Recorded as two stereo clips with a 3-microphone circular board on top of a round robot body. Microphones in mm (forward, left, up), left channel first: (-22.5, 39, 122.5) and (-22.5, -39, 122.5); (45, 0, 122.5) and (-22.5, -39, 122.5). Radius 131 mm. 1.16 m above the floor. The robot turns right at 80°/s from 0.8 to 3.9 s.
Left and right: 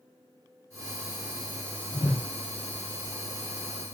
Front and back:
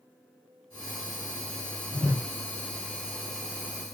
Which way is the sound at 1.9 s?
30° left.